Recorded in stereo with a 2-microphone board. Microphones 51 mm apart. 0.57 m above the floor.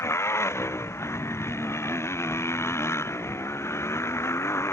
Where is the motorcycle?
60° left (ahead or behind).